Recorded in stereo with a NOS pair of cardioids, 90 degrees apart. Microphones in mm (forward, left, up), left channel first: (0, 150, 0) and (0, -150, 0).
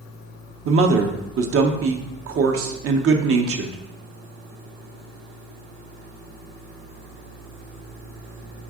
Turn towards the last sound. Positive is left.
turn(degrees=-50)